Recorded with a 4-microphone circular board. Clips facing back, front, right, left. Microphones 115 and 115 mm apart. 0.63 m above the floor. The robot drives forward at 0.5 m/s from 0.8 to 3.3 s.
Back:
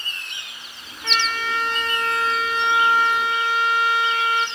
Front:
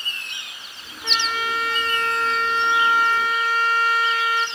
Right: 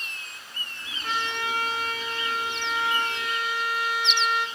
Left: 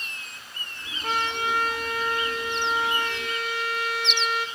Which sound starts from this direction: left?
A trumpet, at 1.0 s.